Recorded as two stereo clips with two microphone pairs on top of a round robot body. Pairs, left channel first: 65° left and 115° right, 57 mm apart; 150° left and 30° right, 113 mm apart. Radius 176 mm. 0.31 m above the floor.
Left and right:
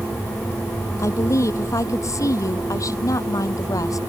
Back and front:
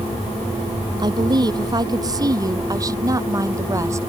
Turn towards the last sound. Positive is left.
turn(degrees=35)